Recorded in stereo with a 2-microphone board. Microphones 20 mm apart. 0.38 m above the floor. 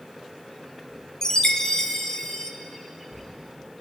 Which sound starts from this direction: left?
A chime, at 1.2 s.